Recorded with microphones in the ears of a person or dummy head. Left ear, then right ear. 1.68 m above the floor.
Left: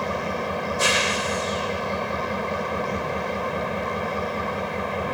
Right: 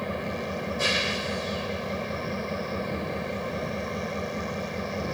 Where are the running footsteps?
I don't hear running footsteps.